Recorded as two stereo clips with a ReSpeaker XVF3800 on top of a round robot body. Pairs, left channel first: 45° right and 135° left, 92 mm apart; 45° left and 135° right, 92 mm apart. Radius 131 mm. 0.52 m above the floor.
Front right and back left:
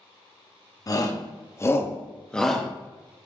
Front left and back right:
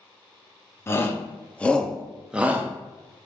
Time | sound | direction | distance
0.9 | a shout | 10° right | 1.1 m